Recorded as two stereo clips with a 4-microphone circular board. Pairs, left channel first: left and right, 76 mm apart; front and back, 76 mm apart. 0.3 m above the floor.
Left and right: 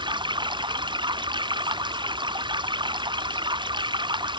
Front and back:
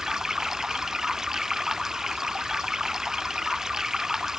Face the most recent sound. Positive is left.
turn(degrees=-95)